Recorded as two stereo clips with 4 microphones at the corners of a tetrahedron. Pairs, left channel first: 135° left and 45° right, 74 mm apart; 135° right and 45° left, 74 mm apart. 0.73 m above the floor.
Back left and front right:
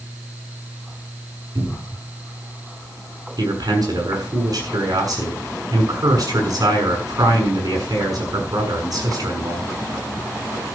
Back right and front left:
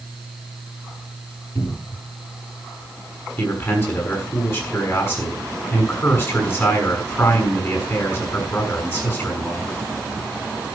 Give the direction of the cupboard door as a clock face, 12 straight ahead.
3 o'clock.